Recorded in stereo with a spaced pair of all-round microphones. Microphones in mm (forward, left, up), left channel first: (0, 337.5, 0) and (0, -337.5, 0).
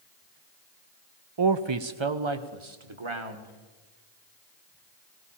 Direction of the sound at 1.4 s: 40° right (ahead or behind).